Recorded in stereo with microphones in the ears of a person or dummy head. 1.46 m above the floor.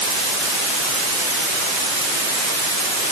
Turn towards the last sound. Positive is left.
No sound to turn to.